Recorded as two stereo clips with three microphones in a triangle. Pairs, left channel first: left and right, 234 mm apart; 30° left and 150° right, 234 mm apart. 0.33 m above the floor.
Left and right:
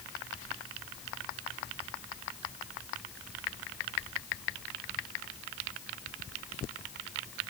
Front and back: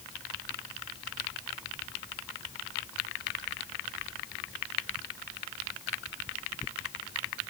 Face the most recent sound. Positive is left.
No sound to turn to.